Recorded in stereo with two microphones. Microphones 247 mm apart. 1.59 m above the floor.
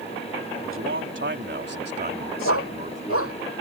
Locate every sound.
0.6 s a man speaking: 60° right (ahead or behind); by 3.5 s 30° right (ahead or behind)
2.5 s a dog barking: 65° left (ahead or behind)